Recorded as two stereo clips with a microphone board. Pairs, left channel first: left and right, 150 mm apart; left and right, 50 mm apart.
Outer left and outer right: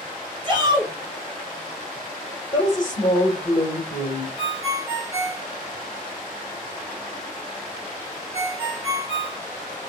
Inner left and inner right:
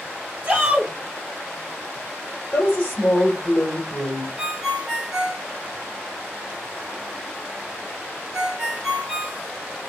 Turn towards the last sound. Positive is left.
turn(degrees=-15)  # may be behind; listen again after turning